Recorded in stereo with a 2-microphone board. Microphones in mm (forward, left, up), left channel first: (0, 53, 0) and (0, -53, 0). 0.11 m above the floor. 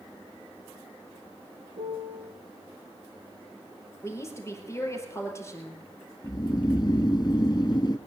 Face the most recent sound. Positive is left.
turn(degrees=40)  # may be behind; listen again after turning